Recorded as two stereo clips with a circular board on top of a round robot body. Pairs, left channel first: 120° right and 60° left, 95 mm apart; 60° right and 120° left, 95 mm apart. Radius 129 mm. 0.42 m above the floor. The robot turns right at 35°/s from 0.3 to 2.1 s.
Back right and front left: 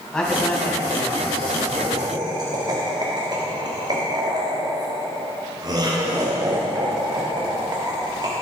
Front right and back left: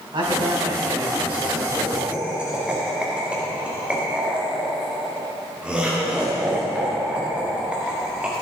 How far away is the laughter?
About 1.5 m.